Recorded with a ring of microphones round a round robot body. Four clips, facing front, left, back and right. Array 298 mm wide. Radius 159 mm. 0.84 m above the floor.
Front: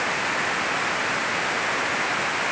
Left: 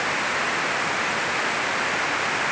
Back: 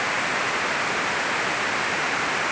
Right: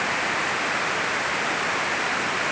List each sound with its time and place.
Only background noise.